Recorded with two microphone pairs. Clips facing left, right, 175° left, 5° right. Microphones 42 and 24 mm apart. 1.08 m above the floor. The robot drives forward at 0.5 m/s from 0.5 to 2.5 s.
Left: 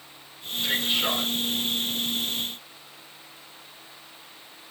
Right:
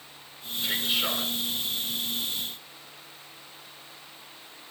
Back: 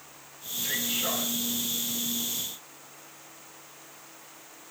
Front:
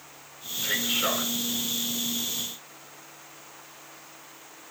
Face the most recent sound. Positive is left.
turn(degrees=5)